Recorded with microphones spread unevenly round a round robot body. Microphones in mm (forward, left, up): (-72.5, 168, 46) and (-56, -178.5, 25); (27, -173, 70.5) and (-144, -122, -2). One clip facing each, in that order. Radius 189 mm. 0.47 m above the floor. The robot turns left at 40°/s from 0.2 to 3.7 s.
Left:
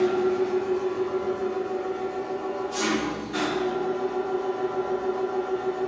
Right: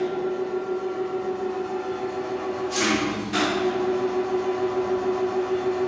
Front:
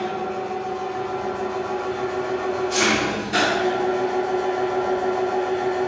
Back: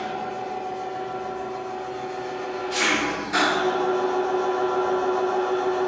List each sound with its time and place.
0.0 s an engine running: 35° left, 1.0 m; by 5.9 s 105° right, 1.0 m